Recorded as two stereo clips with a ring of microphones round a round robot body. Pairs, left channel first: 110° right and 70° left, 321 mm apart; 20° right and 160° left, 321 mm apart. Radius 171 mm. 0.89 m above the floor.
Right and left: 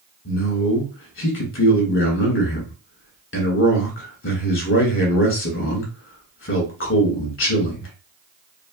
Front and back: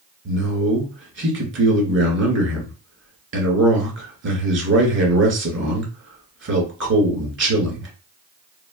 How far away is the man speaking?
About 1.6 m.